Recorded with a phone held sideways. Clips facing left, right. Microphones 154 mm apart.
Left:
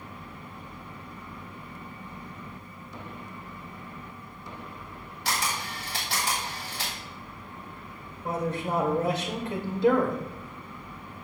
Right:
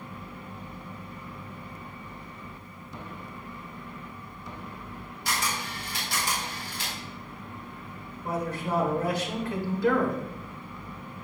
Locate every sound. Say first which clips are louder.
5.2 s a camera shutter: left 1 dB; 80° left, 3.5 m
8.2 s a man speaking: left 1 dB; 25° left (ahead or behind), 1.8 m